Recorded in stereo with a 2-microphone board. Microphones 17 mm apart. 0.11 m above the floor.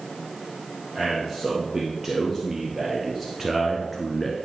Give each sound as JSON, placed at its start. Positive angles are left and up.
{"t": 0.9, "sound": "a man speaking", "side_deg": -30, "distance_m": 3.0}